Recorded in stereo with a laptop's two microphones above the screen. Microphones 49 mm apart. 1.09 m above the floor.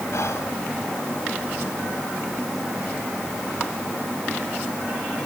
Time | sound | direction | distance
0.1 | whispering | 70° left (ahead or behind) | 5.5 m